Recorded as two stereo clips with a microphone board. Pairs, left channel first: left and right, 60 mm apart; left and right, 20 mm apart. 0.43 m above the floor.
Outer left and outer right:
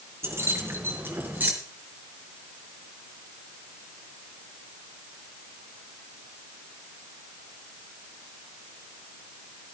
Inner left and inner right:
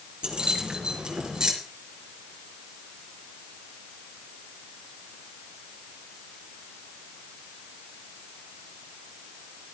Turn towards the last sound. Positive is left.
turn(degrees=-30)  # may be behind; listen again after turning